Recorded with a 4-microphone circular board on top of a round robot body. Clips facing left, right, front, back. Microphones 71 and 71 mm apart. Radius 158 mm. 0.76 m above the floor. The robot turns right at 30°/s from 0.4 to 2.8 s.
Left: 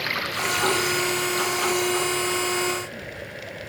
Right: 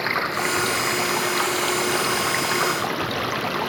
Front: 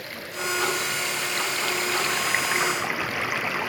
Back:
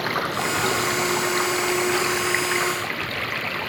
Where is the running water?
155° right; by 3.7 s 80° right.